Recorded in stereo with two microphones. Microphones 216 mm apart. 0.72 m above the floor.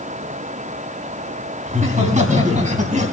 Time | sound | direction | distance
1.7 | laughter | 35° right (ahead or behind) | 5.5 m